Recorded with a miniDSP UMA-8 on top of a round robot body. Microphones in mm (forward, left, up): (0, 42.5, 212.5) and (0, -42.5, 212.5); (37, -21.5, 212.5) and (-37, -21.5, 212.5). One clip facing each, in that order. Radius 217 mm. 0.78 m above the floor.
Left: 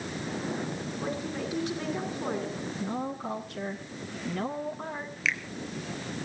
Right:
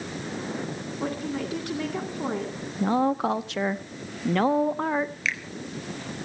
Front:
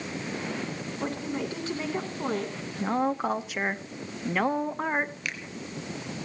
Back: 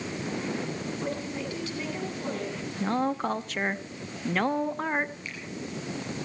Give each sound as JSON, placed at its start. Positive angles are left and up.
{"t": 1.0, "sound": "a woman speaking", "azimuth_deg": -55, "distance_m": 10.0}
{"t": 2.8, "sound": "a woman speaking", "azimuth_deg": -80, "distance_m": 1.2}
{"t": 5.2, "sound": "a finger snap", "azimuth_deg": 0, "distance_m": 3.5}